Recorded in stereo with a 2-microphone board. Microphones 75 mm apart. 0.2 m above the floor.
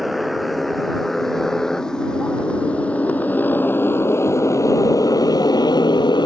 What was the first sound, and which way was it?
A motorcycle, centre (ahead or behind).